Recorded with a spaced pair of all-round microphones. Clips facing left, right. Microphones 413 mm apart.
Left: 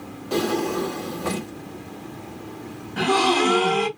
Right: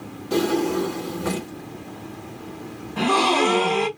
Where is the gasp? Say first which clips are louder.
Even; 30° left (ahead or behind), 1.0 m.